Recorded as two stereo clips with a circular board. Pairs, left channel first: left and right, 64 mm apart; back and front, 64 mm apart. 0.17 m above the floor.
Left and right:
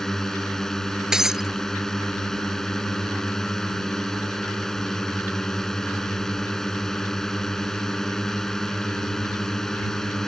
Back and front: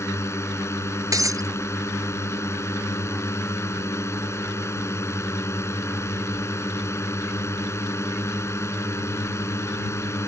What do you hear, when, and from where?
0.0 s a drone: 170° left
1.1 s breaking glass: 10° right